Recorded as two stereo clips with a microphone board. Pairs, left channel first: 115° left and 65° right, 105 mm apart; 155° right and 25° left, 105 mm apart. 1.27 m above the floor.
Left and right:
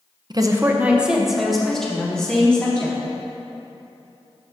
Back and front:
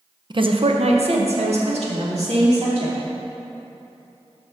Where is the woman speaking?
20° right, 0.6 m; by 3.0 s 35° left, 2.5 m.